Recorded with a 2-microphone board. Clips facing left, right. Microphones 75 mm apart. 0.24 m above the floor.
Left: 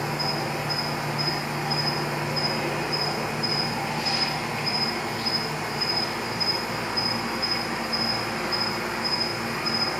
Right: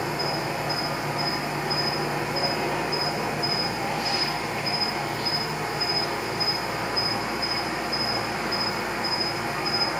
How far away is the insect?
About 1.1 m.